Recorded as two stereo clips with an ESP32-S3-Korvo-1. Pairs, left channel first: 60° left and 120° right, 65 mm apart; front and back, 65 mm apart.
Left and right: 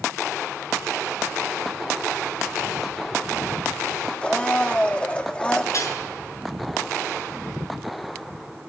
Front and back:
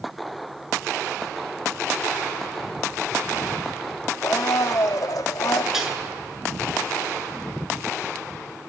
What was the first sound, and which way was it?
A blender, 10° right.